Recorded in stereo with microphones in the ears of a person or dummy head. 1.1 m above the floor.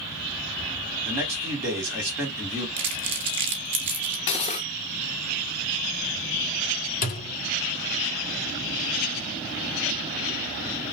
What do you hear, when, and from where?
1.1 s a man speaking: 15° right (ahead or behind), 2.5 m
2.8 s crumpling: 35° right (ahead or behind), 0.5 m
4.3 s cutlery clinking: 35° left (ahead or behind), 0.8 m
7.0 s a thud: 50° left (ahead or behind), 1.2 m